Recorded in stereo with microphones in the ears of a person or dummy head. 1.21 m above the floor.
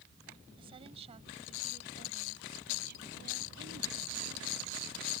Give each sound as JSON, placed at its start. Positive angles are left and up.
{"t": 0.6, "sound": "a woman speaking", "side_deg": -30}